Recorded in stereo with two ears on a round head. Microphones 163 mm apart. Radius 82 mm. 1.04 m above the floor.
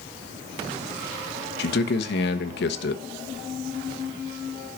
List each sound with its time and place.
1.6 s a man speaking: 65° left (ahead or behind), 1.2 m